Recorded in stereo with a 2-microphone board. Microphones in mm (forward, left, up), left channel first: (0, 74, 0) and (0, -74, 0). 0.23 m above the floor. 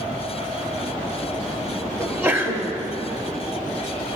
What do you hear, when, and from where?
2.0 s a sneeze: 15° right (ahead or behind), 1.0 m